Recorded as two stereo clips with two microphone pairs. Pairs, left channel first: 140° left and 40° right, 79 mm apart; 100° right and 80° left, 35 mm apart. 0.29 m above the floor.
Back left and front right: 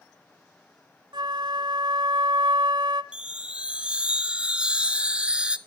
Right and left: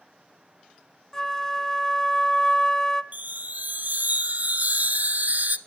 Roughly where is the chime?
Ahead left.